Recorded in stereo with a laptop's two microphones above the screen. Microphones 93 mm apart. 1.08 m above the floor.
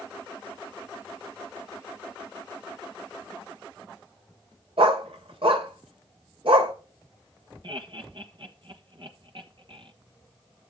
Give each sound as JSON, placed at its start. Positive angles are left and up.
{"t": 4.8, "sound": "a dog barking", "side_deg": -70, "distance_m": 1.5}
{"t": 7.6, "sound": "laughter", "side_deg": -55, "distance_m": 1.6}